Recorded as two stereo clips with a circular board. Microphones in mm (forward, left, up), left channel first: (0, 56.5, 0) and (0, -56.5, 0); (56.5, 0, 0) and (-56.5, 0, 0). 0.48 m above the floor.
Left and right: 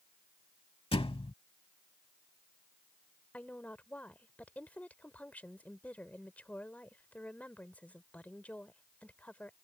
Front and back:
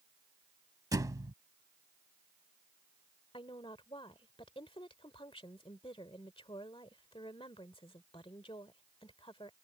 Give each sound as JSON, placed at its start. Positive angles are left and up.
{"t": 0.9, "sound": "a thud", "azimuth_deg": 125}
{"t": 3.3, "sound": "a woman speaking", "azimuth_deg": 15}